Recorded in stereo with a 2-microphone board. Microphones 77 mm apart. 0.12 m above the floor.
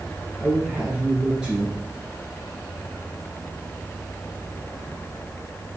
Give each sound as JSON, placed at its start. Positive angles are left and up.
{"t": 0.4, "sound": "a man speaking", "side_deg": -5, "distance_m": 1.7}